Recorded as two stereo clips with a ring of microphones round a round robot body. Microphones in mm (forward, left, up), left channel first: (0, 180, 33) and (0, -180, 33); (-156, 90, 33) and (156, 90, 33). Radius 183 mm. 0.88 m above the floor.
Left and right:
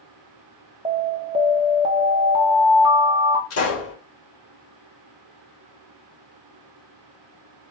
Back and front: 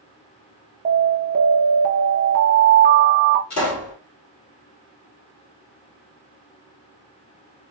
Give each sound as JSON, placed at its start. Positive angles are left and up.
{"t": 0.8, "sound": "an alarm", "azimuth_deg": -25, "distance_m": 0.8}
{"t": 3.5, "sound": "a pop", "azimuth_deg": 140, "distance_m": 3.0}